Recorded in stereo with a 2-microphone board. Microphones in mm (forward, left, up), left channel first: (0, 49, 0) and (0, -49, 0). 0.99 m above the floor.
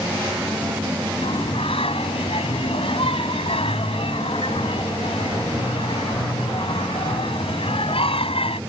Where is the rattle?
No rattle in this recording.